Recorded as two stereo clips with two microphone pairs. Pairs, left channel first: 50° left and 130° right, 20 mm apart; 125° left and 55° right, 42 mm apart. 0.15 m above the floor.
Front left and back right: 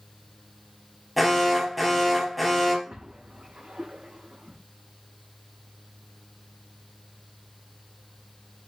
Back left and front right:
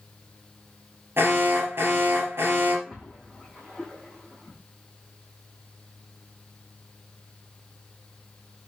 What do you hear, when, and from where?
1.2 s an alarm: 45° right, 3 m
2.9 s a splash: 140° right, 3.5 m